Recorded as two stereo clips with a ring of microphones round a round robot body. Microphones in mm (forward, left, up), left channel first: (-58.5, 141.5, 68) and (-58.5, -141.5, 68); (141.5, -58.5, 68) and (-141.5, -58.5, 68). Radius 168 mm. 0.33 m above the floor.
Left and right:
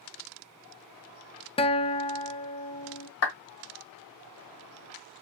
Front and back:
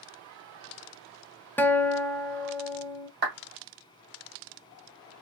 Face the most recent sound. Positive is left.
turn(degrees=125)